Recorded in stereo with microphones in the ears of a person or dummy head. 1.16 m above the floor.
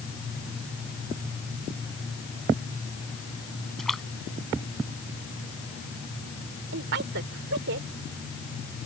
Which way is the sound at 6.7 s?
60° right (ahead or behind).